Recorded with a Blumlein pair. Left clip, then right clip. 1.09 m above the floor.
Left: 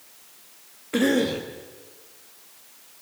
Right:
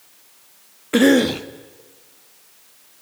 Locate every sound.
0.9 s a cough: 25° right, 1.4 m